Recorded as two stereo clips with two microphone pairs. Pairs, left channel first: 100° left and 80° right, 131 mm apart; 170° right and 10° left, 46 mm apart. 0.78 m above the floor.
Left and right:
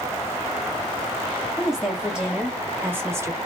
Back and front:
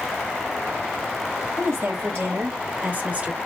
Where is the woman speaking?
5° left, 2 m; by 3.4 s 35° right, 1.1 m.